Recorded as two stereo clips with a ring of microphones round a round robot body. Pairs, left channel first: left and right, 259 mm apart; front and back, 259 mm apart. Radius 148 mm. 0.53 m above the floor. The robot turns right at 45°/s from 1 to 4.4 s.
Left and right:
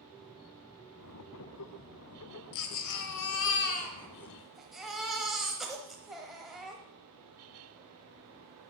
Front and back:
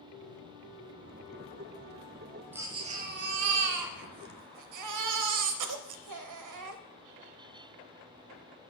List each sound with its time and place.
2.5 s a baby crying: 95° left, 1.0 m; by 6.8 s straight behind, 1.0 m